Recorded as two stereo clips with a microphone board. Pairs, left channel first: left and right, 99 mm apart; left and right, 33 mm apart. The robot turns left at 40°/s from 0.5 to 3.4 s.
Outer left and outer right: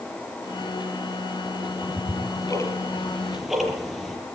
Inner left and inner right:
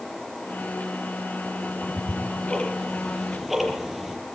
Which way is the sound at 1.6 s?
70° left (ahead or behind).